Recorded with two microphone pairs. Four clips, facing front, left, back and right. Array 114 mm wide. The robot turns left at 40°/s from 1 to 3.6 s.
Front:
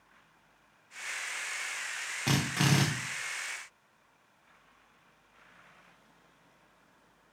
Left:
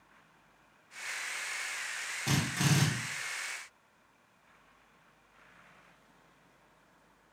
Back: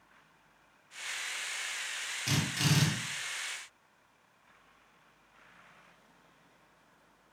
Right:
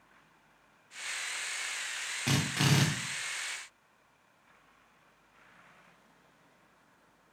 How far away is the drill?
About 0.9 m.